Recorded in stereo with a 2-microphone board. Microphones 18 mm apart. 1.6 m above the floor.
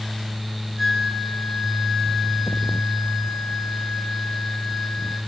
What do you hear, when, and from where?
0.8 s a flute: 10° left (ahead or behind), 6 m